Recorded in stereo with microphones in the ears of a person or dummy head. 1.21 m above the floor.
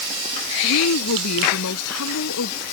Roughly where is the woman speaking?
Left.